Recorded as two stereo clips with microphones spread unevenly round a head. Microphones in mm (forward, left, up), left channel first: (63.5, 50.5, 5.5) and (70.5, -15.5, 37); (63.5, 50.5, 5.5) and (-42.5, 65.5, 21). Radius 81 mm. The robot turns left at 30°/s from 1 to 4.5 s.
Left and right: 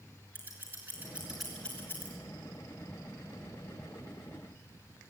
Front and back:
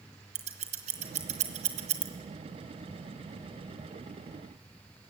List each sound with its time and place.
0.3 s scissors: 150° right, 1.3 m; by 2.1 s 175° left, 1.3 m